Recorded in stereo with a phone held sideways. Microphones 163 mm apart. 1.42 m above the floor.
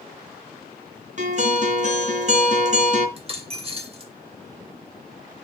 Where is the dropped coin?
35° right (ahead or behind), 1.8 m.